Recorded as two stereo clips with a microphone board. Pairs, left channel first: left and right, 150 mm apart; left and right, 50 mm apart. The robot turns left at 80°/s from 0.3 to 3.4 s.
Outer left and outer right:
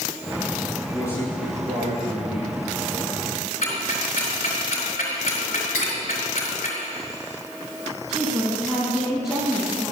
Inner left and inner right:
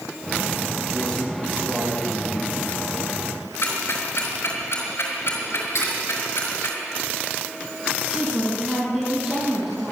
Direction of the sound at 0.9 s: 30° left.